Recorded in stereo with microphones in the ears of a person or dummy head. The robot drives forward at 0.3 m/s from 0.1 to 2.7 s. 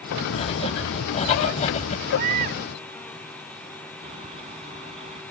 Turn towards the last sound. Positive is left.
turn(degrees=-30)  # may be behind; listen again after turning